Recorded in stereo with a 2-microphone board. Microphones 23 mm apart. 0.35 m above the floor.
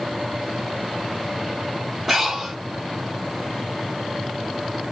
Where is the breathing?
15° right (ahead or behind), 1.1 m.